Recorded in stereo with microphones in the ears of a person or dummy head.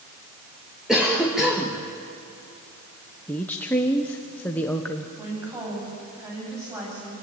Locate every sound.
0.9 s a cough: centre (ahead or behind), 1.9 m
3.3 s a woman speaking: 5° left (ahead or behind), 1.0 m
5.2 s a woman speaking: 15° right (ahead or behind), 8.5 m